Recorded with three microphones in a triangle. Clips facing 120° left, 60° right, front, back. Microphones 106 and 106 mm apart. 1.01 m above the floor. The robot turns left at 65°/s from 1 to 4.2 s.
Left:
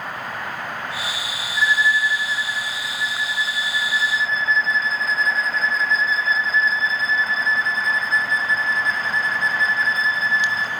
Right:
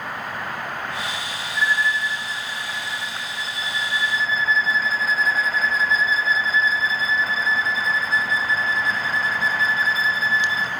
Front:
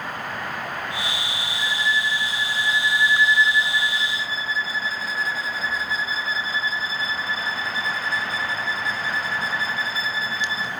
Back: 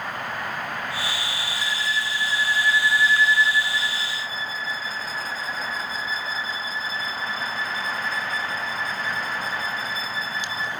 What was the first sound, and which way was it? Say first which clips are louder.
A violin: left 3 dB, front 5 dB; 25° left.